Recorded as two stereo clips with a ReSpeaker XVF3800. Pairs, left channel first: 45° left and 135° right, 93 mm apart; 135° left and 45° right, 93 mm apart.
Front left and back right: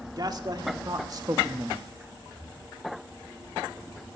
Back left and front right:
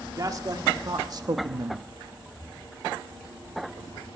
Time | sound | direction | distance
0.2 | a man speaking | 95° right | 1.8 m
2.3 | breathing | 175° right | 3.5 m